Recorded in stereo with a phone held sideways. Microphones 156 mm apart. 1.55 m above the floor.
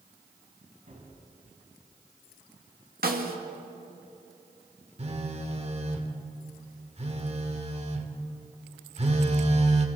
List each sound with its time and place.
0.9 s a gunshot: 60° right (ahead or behind), 7 m
3.0 s a snare drum: 75° right (ahead or behind), 2 m
5.0 s a phone buzzing: 45° right (ahead or behind), 2 m